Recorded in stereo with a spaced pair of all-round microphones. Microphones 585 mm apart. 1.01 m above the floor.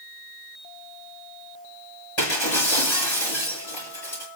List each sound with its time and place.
2.2 s breaking glass: 50° left (ahead or behind), 7.5 m